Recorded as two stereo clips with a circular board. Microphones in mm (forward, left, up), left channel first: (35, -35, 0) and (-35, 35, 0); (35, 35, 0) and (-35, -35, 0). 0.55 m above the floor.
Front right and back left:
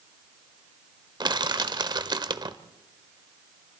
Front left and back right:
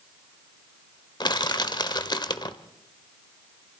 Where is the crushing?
90° left, 1.0 m.